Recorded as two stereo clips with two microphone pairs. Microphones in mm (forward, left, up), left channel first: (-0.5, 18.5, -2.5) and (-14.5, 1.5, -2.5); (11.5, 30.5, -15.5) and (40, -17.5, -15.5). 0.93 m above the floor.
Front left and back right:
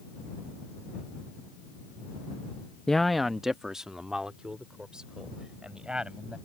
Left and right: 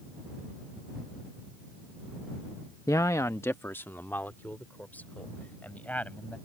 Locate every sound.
2.9 s a man speaking: 115° left; by 6.3 s 175° right